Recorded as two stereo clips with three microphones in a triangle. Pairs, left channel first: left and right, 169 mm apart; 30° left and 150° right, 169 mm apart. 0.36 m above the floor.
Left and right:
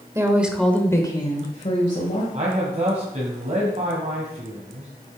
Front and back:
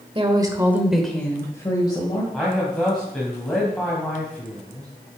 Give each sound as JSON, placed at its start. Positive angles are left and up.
{"t": 0.1, "sound": "a woman speaking", "azimuth_deg": -145, "distance_m": 1.3}
{"t": 2.3, "sound": "a man speaking", "azimuth_deg": -55, "distance_m": 2.0}